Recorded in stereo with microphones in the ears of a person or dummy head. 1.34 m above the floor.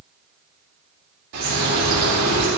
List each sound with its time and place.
1.3 s a bird: 60° right (ahead or behind), 3.5 m